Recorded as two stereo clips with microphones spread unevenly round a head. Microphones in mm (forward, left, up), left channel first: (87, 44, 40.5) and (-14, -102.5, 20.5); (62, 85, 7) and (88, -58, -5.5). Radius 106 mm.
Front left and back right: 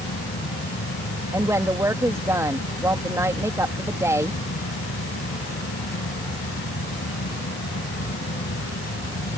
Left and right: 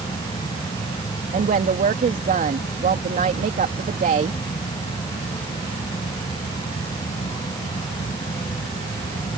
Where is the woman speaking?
45° right.